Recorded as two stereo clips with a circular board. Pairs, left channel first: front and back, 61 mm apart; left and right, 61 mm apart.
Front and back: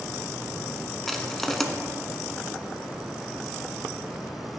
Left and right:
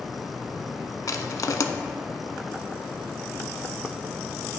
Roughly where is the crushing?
Left.